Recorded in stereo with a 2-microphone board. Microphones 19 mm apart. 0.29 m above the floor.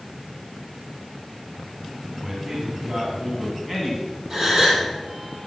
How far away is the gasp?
About 3.5 m.